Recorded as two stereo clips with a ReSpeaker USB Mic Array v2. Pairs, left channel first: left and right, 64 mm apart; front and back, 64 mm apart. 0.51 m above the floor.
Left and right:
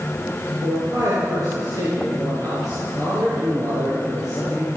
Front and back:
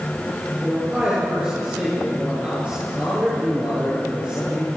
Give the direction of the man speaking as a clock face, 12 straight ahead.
4 o'clock.